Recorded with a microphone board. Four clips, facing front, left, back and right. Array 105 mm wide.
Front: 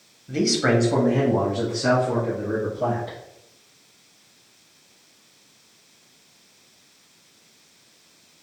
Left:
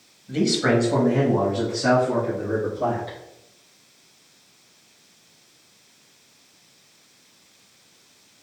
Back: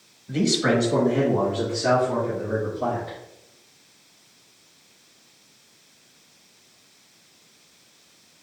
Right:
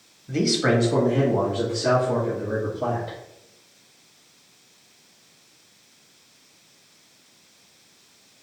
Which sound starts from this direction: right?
A man speaking, at 0.3 s.